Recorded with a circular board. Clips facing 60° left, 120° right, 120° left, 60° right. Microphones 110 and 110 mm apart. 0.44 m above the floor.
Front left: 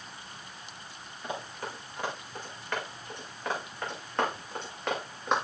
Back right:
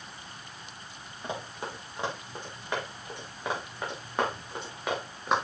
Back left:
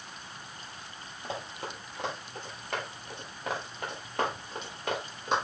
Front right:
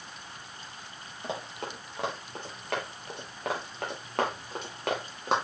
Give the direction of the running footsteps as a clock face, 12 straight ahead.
2 o'clock.